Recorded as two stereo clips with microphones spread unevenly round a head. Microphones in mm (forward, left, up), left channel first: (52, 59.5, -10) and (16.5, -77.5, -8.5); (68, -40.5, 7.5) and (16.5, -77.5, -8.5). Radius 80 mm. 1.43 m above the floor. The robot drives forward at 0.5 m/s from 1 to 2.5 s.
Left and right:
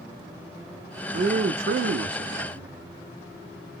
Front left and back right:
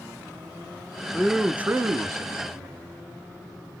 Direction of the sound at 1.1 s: 55° right.